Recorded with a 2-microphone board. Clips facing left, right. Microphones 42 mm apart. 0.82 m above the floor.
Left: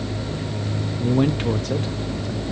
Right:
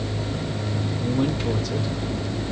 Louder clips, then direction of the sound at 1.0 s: Left 4 dB; 30° left (ahead or behind).